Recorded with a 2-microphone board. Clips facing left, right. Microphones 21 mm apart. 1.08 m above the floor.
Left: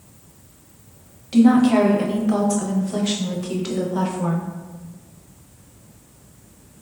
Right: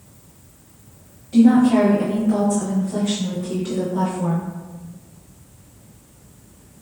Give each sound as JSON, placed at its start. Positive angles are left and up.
{"t": 1.3, "sound": "a woman speaking", "side_deg": 75, "distance_m": 0.5}